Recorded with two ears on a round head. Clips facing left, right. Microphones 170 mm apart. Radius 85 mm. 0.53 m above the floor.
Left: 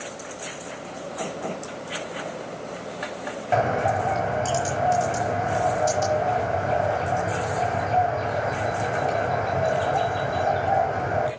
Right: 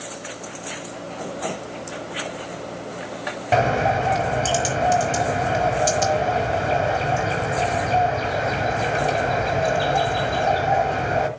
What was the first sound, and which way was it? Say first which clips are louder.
A bird: right 3 dB; 40° right (ahead or behind).